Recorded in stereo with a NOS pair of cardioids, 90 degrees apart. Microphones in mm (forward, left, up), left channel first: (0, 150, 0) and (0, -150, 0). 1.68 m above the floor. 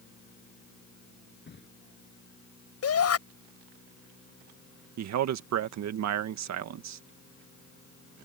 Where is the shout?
55° left.